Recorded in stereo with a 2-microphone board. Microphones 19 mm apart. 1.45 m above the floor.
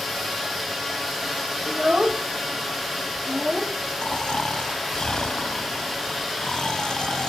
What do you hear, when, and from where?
1.7 s a child speaking: 55° right (ahead or behind)
4.0 s snoring: 50° left (ahead or behind)